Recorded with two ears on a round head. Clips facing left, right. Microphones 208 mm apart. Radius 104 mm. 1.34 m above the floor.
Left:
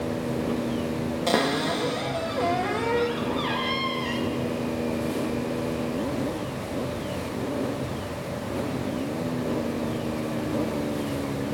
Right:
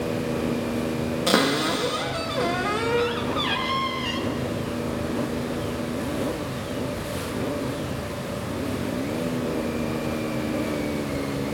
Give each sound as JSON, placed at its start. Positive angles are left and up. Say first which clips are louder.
{"t": 1.3, "sound": "a cupboard door", "louder": "right 2 dB", "side_deg": -10, "distance_m": 0.7}